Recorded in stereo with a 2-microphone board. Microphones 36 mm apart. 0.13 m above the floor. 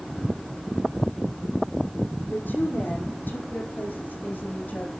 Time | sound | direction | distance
2.3 | a woman speaking | 65° left (ahead or behind) | 5 m